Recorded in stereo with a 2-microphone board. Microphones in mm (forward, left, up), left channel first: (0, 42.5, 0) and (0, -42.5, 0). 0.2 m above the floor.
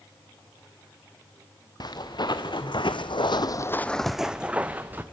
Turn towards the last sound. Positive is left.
turn(degrees=-20)  # may be behind; listen again after turning